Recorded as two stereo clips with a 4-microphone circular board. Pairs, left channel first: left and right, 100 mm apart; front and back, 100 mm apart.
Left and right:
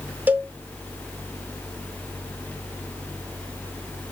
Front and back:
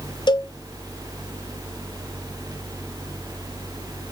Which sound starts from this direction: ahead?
A cowbell, at 0.3 s.